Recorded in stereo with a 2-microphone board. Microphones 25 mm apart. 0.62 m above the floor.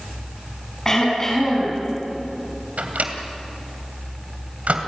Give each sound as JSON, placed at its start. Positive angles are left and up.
{"t": 0.8, "sound": "throat clearing", "side_deg": 20, "distance_m": 6.0}
{"t": 2.8, "sound": "a microwave", "side_deg": -75, "distance_m": 2.5}